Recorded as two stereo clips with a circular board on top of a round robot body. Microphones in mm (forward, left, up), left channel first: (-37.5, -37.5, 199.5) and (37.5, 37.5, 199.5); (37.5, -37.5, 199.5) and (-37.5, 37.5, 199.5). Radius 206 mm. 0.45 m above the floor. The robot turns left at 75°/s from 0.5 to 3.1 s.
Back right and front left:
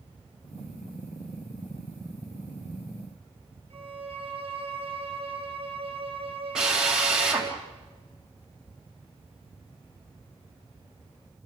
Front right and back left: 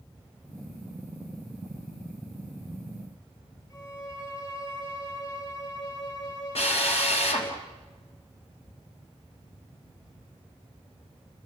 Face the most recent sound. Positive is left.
turn(degrees=-40)